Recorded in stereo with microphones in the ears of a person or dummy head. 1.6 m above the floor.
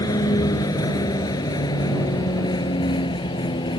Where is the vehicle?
20° left (ahead or behind); by 3.8 s 25° left (ahead or behind).